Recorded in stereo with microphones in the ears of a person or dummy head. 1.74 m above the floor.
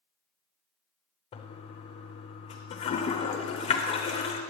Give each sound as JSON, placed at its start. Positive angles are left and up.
{"t": 1.3, "sound": "a toilet flushing", "side_deg": 30, "distance_m": 0.6}